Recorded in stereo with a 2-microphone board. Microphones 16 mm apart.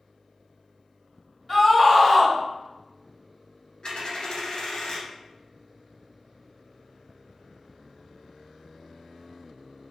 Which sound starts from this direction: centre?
A scream, at 1.5 s.